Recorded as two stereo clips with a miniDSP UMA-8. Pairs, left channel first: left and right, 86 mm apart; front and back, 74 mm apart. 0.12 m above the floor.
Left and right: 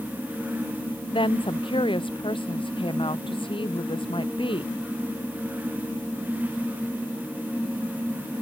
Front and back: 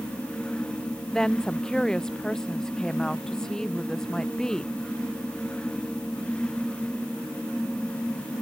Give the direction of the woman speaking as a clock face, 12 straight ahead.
9 o'clock.